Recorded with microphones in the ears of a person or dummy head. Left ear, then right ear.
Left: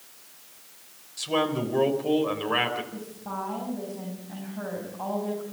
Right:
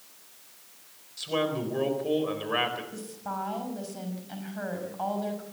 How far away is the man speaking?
About 4.5 m.